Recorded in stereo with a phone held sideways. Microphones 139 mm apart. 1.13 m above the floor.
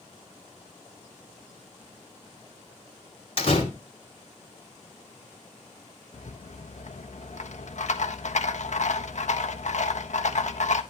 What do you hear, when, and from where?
3.4 s a door slam: 45° left (ahead or behind), 3 m
6.1 s a rattle: 65° left (ahead or behind), 1.2 m